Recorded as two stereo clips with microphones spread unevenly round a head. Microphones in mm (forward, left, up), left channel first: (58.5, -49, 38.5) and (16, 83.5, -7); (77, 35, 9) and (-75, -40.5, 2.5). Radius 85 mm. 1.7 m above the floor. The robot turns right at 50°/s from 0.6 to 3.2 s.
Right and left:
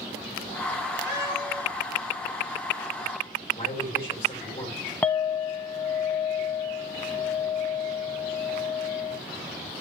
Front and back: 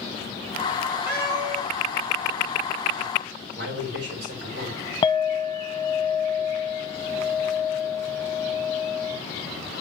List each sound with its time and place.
1.1 s a cat meowing: 130° left, 6.5 m; by 1.6 s 155° left, 6.5 m
3.5 s a man speaking: 130° right, 7.5 m
5.0 s a clink: 25° right, 0.8 m